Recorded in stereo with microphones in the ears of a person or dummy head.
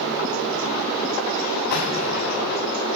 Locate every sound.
1.7 s an explosion: 60° left (ahead or behind), 7 m